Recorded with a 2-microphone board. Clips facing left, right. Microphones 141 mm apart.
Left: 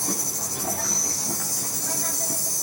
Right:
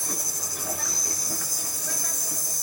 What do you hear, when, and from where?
0.0 s an insect: 80° left, 5 m